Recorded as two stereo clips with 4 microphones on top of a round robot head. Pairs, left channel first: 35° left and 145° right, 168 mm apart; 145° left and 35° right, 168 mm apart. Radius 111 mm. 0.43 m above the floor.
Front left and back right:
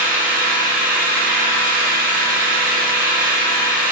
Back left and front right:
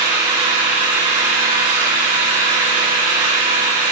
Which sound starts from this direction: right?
An engine running, at 0.0 s.